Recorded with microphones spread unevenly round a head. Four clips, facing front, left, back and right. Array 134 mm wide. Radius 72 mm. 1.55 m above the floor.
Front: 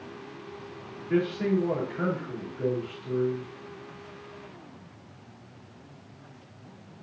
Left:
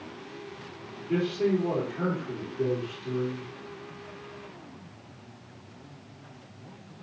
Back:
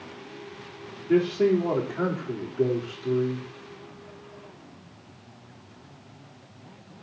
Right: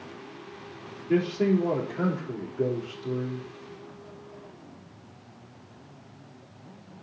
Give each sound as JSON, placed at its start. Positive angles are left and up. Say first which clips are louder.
{"t": 1.1, "sound": "a man speaking", "louder": "right 2 dB, back 5 dB", "azimuth_deg": -150, "distance_m": 4.0}